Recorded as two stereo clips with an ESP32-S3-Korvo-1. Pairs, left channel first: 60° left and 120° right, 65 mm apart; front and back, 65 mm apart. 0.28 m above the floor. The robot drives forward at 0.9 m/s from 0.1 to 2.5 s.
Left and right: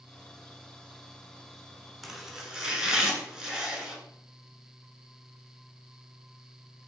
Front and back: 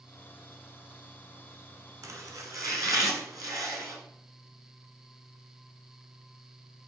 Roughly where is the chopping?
Behind left.